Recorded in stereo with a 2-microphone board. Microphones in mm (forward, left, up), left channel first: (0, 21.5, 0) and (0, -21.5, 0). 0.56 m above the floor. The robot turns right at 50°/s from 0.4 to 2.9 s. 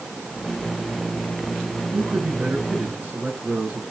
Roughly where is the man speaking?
Right.